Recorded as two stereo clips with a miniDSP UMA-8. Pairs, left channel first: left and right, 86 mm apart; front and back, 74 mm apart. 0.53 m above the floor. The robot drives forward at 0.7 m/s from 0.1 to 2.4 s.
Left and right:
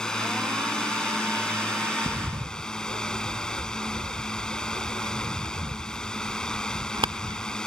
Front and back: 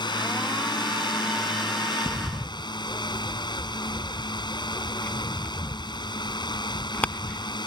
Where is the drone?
10° left.